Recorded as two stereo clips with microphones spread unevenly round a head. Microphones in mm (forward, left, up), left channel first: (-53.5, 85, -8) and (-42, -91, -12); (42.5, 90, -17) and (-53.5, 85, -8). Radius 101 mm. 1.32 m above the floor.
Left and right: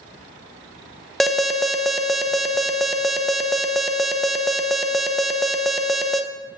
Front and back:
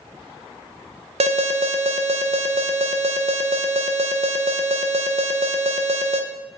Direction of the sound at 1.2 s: 175° right.